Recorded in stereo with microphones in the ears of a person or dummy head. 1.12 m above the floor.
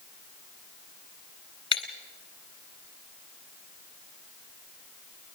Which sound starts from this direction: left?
Breaking glass, at 1.7 s.